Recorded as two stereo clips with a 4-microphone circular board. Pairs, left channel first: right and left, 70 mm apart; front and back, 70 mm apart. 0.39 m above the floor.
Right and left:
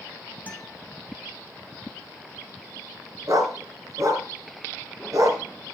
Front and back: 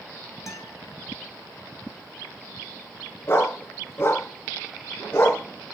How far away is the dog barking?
About 2.5 m.